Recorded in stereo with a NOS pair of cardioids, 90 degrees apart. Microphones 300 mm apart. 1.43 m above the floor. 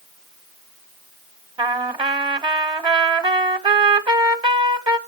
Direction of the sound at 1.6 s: 15° right.